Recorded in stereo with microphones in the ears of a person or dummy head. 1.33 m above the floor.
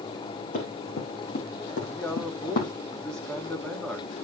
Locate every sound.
0.5 s running footsteps: 50° left (ahead or behind), 3.5 m; by 2.7 s 45° left (ahead or behind), 2.5 m
1.9 s a man speaking: 5° left (ahead or behind), 1.9 m